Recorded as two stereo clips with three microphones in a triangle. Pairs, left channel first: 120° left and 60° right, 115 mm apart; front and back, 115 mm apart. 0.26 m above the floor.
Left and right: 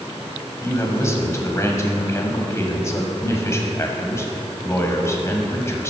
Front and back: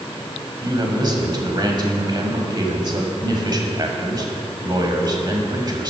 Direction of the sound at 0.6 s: 165° left.